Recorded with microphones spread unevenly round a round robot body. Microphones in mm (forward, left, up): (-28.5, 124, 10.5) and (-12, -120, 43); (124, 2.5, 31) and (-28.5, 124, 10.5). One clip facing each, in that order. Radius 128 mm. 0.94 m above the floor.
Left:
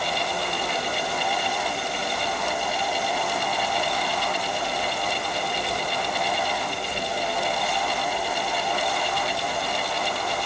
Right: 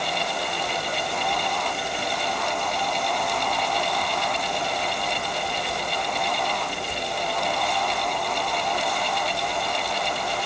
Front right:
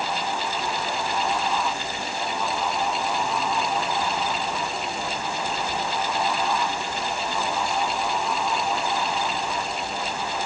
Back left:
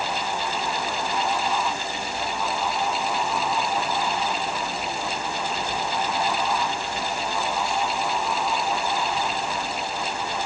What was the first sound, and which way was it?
Only background noise.